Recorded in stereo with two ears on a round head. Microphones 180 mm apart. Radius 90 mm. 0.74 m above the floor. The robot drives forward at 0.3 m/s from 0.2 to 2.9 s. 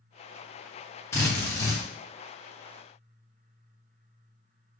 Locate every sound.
1.1 s a drill: 15° left (ahead or behind), 1.2 m